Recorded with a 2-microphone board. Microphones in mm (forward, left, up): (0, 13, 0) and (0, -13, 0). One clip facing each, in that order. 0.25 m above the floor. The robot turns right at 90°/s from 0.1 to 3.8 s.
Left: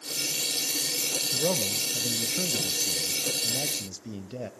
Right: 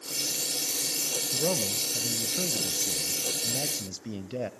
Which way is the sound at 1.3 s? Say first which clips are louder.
Even; 10° left (ahead or behind).